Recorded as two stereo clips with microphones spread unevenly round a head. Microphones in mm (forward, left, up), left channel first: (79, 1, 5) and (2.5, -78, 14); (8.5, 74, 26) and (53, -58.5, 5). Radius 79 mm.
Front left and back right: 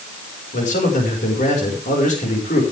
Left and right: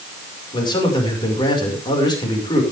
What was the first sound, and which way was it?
A man speaking, 50° left.